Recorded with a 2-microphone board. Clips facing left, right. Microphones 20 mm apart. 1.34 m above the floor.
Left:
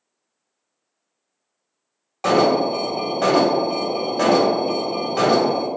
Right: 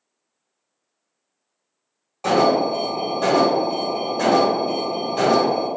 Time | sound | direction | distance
2.2 | an alarm | 35° left (ahead or behind) | 1.4 m